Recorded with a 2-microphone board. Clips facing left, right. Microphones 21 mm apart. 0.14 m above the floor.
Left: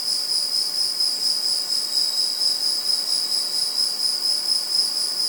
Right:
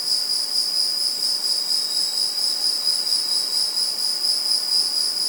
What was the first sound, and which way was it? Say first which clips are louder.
An insect: right 1 dB; 70° right (ahead or behind).